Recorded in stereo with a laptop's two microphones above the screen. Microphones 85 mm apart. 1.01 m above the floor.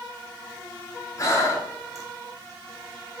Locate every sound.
1.2 s breathing: 40° left (ahead or behind), 0.6 m